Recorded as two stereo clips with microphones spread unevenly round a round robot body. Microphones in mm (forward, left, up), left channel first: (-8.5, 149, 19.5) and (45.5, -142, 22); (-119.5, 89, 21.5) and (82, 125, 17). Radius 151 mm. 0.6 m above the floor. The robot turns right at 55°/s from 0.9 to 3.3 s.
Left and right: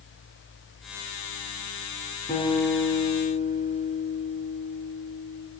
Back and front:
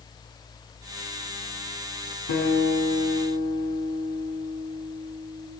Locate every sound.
2.3 s a guitar: 175° left, 7.5 m; by 5.5 s 130° right, 7.5 m